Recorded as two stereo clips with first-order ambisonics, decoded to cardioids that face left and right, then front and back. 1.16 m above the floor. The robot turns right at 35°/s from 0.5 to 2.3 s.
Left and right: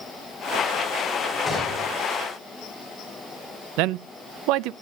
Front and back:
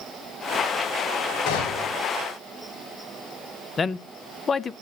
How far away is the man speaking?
About 0.5 m.